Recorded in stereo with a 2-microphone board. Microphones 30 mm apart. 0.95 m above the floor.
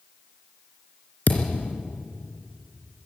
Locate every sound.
1.3 s a thud: 65° left (ahead or behind), 3 m